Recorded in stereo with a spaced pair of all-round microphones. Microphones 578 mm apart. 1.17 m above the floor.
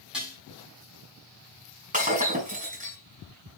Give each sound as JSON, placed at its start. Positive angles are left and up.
{"t": 0.1, "sound": "dishes clattering", "side_deg": 0, "distance_m": 6.0}
{"t": 1.9, "sound": "breaking glass", "side_deg": -15, "distance_m": 4.5}